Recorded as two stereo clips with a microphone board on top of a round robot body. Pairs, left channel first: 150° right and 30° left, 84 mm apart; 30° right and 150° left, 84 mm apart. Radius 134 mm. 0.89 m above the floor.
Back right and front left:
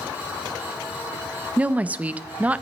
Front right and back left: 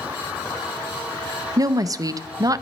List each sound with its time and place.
1.6 s a woman speaking: 105° left, 0.5 m